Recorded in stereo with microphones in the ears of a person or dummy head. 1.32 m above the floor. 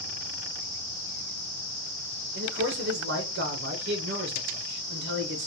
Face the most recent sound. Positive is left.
turn(degrees=-60)  # may be behind; listen again after turning